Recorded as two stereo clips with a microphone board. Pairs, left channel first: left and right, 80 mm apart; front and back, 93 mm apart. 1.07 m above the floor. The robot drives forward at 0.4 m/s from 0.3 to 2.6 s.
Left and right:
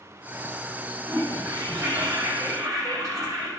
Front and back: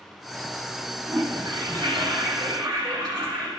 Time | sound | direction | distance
1.1 | a toilet flushing | 130° right | 4 m